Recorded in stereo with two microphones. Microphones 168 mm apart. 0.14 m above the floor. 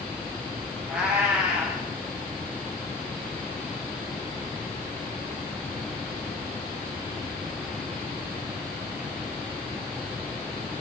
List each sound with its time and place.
0.9 s a cat meowing: 5° right (ahead or behind), 6.5 m